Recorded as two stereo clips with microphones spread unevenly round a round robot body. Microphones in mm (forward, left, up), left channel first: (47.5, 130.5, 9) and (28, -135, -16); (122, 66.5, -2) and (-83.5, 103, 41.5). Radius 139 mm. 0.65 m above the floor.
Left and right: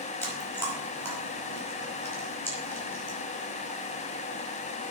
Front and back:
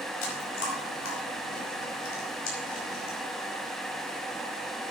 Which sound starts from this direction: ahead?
Chewing, at 0.2 s.